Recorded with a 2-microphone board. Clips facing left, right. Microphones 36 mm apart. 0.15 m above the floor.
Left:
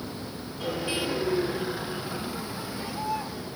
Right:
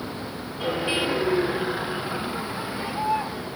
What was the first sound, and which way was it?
A vehicle, 25° right (ahead or behind).